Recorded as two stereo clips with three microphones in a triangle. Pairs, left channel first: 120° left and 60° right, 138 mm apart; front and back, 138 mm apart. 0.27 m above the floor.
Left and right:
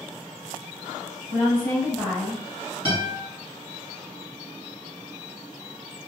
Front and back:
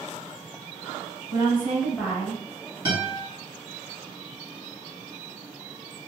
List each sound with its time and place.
1.3 s a woman speaking: 135° left, 1.1 m; by 2.4 s 15° left, 1.0 m
2.9 s a guitar: 150° left, 1.8 m